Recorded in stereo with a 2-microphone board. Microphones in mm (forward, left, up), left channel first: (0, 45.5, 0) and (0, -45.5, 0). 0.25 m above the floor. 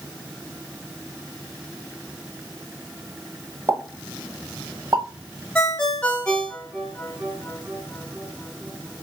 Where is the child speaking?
No child speaking in this recording.